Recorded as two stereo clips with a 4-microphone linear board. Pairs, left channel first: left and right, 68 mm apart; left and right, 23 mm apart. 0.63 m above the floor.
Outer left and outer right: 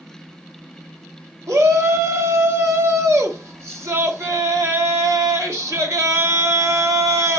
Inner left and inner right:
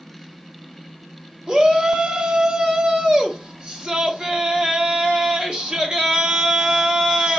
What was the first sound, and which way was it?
A shout, 45° right (ahead or behind).